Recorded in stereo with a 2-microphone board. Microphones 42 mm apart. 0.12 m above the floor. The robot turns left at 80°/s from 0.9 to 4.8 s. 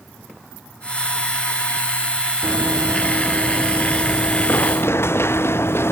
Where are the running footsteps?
85° right; by 5.9 s 80° left.